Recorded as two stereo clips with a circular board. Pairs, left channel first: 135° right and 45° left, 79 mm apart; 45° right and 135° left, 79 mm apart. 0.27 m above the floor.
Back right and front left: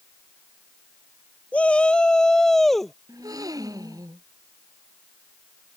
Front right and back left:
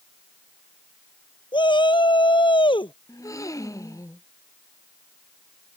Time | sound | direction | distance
1.5 | a shout | 60° right | ?
3.1 | a gasp | 5° left | ?